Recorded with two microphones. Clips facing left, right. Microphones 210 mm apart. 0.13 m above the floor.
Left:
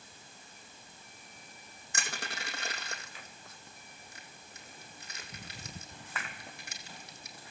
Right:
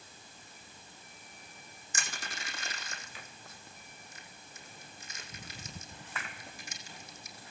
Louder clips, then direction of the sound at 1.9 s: Left 3 dB; 65° left (ahead or behind).